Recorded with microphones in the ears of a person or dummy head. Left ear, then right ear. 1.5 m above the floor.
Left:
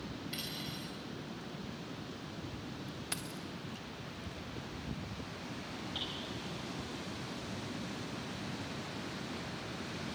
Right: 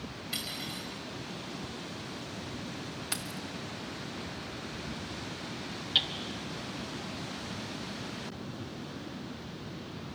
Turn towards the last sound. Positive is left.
turn(degrees=-25)  # may be behind; listen again after turning